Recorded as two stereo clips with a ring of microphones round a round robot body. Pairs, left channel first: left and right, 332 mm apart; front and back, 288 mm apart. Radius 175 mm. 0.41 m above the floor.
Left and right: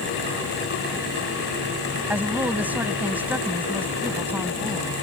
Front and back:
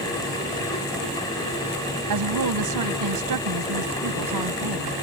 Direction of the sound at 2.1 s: 175° right.